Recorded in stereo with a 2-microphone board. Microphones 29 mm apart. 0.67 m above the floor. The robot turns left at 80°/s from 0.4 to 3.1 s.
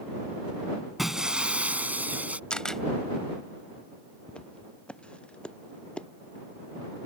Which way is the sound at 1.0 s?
10° right.